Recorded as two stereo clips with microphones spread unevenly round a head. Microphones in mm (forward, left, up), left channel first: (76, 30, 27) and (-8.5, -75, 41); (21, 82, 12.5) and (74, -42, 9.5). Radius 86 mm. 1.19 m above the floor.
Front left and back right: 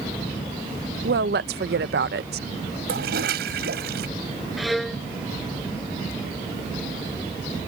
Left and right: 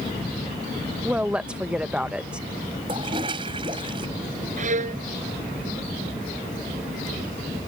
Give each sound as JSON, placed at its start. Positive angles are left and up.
{"t": 1.0, "sound": "a woman speaking", "azimuth_deg": -150}
{"t": 2.9, "sound": "a toilet flushing", "azimuth_deg": -130}
{"t": 4.6, "sound": "a violin", "azimuth_deg": -40}